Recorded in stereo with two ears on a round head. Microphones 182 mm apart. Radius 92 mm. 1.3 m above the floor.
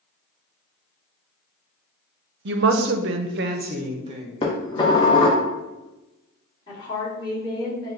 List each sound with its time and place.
2.5 s a woman speaking: 55° right (ahead or behind), 0.6 m; by 4.3 s 25° right (ahead or behind), 0.8 m
4.4 s dishes clattering: 20° left (ahead or behind), 0.6 m
6.7 s a woman speaking: 20° left (ahead or behind), 1.8 m